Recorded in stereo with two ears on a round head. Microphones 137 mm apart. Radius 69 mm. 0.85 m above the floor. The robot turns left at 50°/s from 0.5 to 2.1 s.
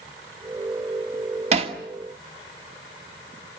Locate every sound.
1.5 s hammering: 50° right (ahead or behind), 2.0 m; by 1.8 s 35° right (ahead or behind), 2.0 m